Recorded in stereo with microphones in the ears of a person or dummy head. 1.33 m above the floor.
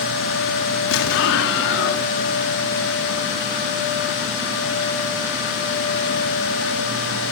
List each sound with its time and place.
0.9 s an explosion: 65° left (ahead or behind), 1.6 m